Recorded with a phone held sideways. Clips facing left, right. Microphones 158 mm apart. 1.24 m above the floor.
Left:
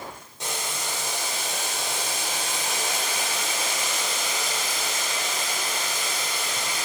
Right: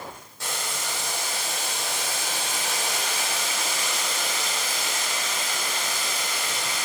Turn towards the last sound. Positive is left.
turn(degrees=20)  # may be behind; listen again after turning